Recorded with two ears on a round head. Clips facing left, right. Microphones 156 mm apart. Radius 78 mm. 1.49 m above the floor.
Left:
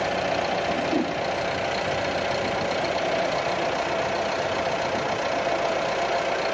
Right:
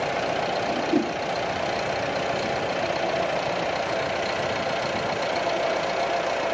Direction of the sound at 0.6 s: 5° left (ahead or behind).